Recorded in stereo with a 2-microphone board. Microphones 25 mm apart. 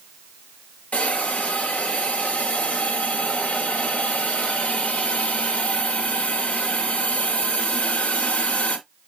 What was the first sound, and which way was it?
A hiss, 70° left (ahead or behind).